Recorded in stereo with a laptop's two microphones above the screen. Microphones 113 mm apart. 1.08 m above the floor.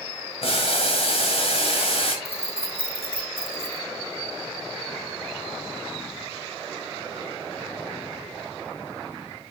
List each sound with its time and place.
0.4 s boiling: 60° left (ahead or behind), 2 m
2.2 s keys jangling: 60° left (ahead or behind), 0.9 m